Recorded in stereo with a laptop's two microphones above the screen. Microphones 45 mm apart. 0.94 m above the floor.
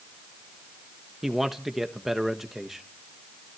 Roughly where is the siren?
No siren in this recording.